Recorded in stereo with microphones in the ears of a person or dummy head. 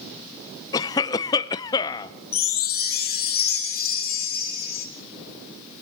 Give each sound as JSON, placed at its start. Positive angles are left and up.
{"t": 0.7, "sound": "a cough", "side_deg": 20, "distance_m": 0.6}
{"t": 2.3, "sound": "a chime", "side_deg": 50, "distance_m": 2.5}